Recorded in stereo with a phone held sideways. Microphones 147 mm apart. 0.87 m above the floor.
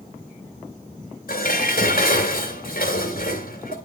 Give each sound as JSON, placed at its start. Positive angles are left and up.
{"t": 1.3, "sound": "dishes clattering", "side_deg": 75, "distance_m": 2.5}